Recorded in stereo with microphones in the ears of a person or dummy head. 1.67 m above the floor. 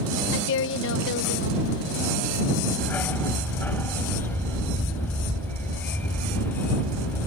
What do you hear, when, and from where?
0.3 s a woman speaking: 65° left (ahead or behind)
2.8 s a dog barking: 10° left (ahead or behind)